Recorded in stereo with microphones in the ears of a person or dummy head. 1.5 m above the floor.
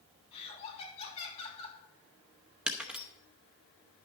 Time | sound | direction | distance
0.3 | laughter | 30° left (ahead or behind) | 5 m
2.7 | breaking glass | 10° right (ahead or behind) | 0.8 m